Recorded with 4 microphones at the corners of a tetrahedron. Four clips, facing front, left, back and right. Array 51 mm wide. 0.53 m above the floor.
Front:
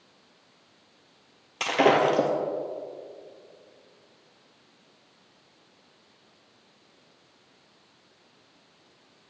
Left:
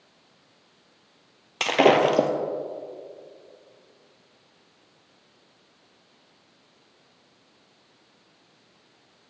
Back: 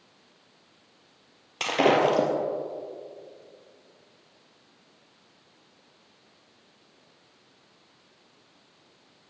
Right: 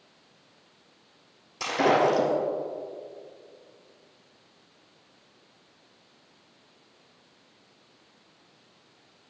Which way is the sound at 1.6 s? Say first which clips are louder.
Left 4 dB, front 1 dB; 95° left.